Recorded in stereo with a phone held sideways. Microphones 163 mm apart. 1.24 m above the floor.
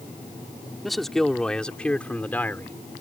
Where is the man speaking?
Centre (ahead or behind); by 2.8 s 10° left (ahead or behind).